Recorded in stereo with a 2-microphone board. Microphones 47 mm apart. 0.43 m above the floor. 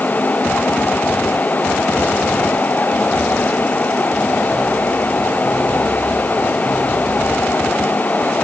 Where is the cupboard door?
No cupboard door in this recording.